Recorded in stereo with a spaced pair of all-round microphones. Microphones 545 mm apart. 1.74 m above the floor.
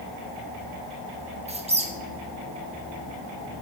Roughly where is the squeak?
Centre.